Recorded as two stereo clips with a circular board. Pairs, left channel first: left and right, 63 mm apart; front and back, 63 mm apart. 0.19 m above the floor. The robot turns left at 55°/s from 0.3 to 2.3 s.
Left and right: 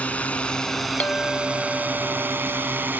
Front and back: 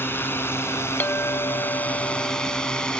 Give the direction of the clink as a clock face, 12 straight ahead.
11 o'clock.